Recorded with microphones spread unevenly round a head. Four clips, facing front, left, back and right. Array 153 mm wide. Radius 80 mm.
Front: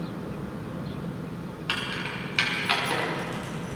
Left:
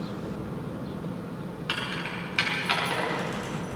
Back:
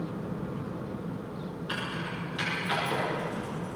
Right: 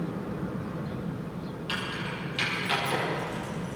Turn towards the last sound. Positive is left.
turn(degrees=20)